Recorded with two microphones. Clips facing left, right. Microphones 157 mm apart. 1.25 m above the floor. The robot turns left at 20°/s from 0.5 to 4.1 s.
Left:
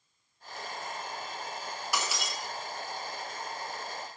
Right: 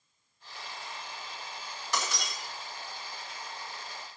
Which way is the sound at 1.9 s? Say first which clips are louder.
Right 1 dB; 10° left (ahead or behind).